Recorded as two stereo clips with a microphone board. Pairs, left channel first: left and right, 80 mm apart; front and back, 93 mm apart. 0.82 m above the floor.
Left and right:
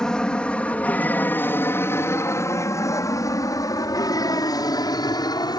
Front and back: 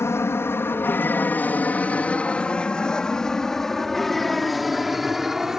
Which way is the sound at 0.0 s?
20° left.